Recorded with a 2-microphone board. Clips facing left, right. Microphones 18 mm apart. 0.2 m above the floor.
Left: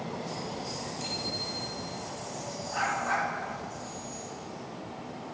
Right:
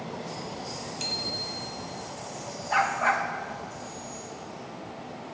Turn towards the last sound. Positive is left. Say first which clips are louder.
# right 5 dB
turn(degrees=-85)